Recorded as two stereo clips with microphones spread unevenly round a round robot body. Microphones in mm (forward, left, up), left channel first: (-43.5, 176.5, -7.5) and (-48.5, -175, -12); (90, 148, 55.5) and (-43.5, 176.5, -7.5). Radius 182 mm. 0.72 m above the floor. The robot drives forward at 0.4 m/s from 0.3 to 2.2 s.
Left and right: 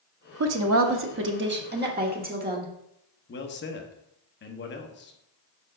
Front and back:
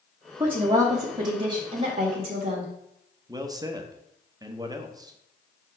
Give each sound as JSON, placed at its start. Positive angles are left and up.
{"t": 0.4, "sound": "a woman speaking", "azimuth_deg": -130, "distance_m": 0.8}
{"t": 3.3, "sound": "a man speaking", "azimuth_deg": 145, "distance_m": 1.0}